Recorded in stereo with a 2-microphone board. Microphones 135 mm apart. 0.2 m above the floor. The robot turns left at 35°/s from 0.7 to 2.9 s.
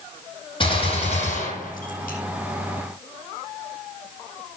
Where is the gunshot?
140° left, 9.5 m; by 2.2 s 90° left, 9.5 m.